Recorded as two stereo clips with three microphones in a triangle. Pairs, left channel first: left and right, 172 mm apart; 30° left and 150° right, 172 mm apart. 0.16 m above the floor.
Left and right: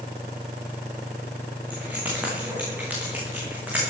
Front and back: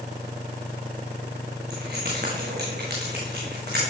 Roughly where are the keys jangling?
Behind.